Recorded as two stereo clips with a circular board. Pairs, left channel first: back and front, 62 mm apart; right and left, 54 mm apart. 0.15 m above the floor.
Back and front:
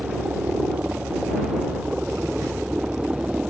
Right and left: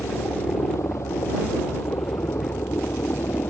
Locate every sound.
0.0 s a helicopter: 70° right